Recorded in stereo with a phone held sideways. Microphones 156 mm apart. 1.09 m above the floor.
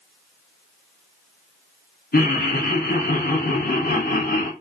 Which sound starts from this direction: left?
Laughter, at 2.1 s.